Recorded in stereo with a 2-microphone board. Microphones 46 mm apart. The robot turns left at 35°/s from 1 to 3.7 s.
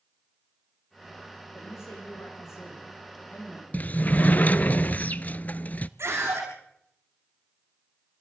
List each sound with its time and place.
1.5 s a man speaking: 110° left, 7 m; by 4.7 s 35° left, 7 m
3.7 s a sliding door: 35° left (ahead or behind), 0.6 m
6.0 s a scream: 70° right (ahead or behind), 6.5 m